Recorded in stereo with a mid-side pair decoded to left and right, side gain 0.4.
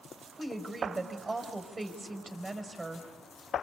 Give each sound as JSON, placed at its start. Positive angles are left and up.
{"t": 0.4, "sound": "a woman speaking", "azimuth_deg": -30, "distance_m": 4.5}